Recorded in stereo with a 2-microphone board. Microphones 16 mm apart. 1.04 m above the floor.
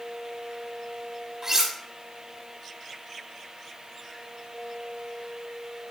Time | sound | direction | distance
1.4 | cutlery clinking | 30° right (ahead or behind) | 1.4 m